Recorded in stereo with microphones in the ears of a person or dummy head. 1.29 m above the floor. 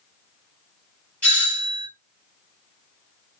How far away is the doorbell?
About 2.0 m.